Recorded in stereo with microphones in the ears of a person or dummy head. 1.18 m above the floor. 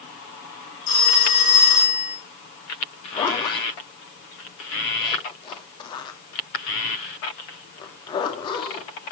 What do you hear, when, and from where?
0.9 s a phone ringing: 45° left (ahead or behind), 5.5 m
3.1 s a zipper: 25° left (ahead or behind), 2.5 m